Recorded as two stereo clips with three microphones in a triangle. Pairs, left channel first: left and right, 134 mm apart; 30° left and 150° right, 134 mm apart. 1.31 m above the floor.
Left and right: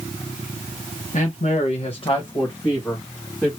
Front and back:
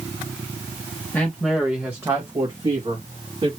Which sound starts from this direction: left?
A man speaking, at 1.1 s.